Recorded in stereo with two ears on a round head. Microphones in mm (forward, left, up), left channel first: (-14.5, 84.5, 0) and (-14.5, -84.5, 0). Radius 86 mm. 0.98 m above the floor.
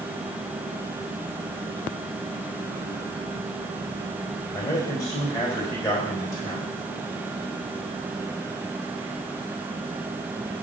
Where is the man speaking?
10° left (ahead or behind), 4 m.